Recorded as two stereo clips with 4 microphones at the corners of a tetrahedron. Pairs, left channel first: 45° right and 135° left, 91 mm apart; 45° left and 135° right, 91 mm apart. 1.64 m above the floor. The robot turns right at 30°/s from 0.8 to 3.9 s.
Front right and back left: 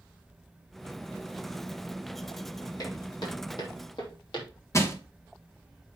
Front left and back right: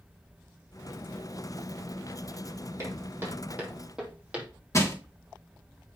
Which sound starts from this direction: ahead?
Crushing, at 4.7 s.